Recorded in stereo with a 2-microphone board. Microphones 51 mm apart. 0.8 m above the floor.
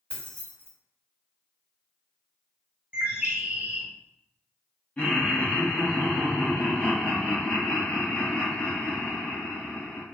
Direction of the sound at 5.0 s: 25° left (ahead or behind).